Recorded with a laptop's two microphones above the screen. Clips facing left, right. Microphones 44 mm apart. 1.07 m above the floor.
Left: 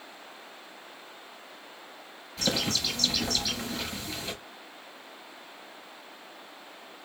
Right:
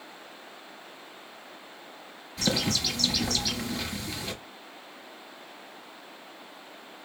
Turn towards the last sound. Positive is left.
turn(degrees=-5)  # may be behind; listen again after turning